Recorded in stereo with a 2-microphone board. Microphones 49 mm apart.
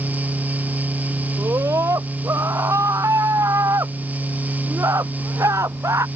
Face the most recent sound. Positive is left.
turn(degrees=-80)